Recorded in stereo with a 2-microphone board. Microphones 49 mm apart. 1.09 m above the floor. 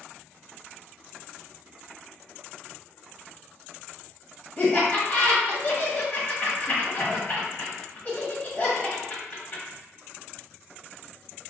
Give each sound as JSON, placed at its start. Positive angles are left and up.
{"t": 4.6, "sound": "laughter", "side_deg": 30, "distance_m": 1.2}